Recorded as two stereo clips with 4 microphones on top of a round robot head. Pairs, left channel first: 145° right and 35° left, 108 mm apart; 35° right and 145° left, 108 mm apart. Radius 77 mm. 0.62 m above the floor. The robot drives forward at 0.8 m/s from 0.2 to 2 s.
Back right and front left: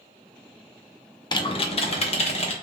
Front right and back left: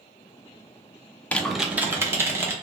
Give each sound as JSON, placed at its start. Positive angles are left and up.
{"t": 1.3, "sound": "typing on a keyboard", "azimuth_deg": -110, "distance_m": 0.6}